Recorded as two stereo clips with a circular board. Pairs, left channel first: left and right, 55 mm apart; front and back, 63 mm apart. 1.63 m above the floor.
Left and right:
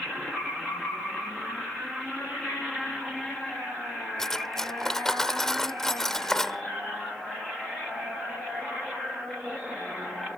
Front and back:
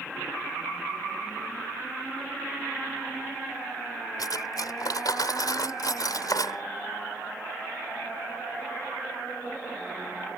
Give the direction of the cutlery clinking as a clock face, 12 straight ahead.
12 o'clock.